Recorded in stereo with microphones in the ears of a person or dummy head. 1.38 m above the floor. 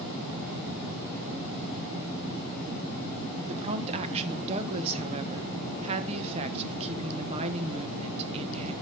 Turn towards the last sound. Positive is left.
turn(degrees=-30)  # may be behind; listen again after turning